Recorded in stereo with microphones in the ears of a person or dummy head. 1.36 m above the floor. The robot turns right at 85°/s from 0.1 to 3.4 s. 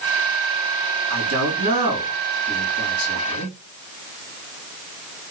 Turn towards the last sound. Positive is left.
turn(degrees=85)